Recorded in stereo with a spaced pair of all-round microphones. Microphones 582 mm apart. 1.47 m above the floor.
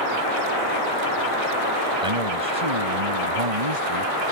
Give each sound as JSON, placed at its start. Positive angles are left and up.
{"t": 2.0, "sound": "a man speaking", "side_deg": -70}